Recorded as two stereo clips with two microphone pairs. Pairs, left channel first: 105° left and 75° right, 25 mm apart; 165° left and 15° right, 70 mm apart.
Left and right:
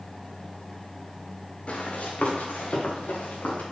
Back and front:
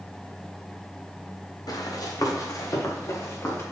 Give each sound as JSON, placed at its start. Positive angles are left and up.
{"t": 1.7, "sound": "running footsteps", "azimuth_deg": 145, "distance_m": 2.5}